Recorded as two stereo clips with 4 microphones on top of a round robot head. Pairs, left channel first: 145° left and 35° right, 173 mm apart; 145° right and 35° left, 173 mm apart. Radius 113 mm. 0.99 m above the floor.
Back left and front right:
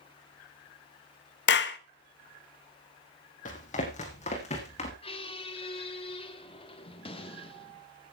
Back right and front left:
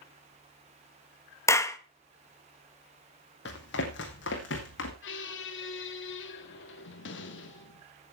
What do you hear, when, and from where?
1.5 s a clap: 140° left, 1.2 m
3.5 s running footsteps: 170° right, 2 m; by 4.9 s 160° right, 3 m
5.0 s a squeak: 155° right, 1.6 m